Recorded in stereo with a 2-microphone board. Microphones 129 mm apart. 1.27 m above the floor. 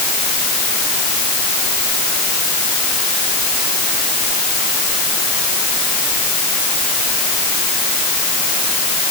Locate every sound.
Only background noise.